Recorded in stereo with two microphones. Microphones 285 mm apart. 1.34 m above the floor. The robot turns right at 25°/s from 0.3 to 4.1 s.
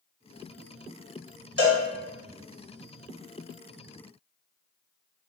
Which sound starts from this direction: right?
A cowbell, at 1.6 s.